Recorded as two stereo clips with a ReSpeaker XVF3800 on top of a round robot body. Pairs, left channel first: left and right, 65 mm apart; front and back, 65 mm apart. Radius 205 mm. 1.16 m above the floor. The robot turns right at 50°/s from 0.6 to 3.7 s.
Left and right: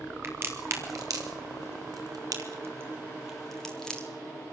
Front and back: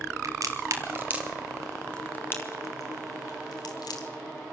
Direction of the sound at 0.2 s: 145° right.